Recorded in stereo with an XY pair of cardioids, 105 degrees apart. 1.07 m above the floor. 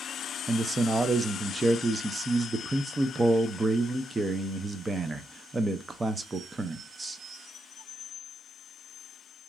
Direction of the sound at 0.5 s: 30° right.